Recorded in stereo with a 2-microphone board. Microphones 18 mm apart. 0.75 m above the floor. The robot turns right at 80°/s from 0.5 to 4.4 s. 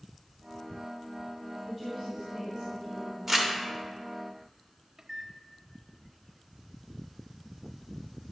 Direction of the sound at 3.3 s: 15° right (ahead or behind).